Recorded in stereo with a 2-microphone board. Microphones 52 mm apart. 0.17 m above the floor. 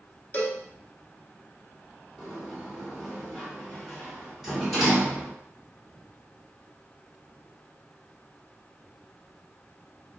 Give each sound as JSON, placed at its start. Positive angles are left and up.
{"t": 0.3, "sound": "a cowbell", "side_deg": 30, "distance_m": 0.6}
{"t": 2.2, "sound": "a sliding door", "side_deg": -5, "distance_m": 1.8}